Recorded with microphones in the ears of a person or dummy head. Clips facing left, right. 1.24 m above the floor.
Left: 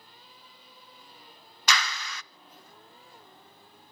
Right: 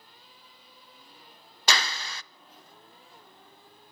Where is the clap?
25° right (ahead or behind), 0.5 m.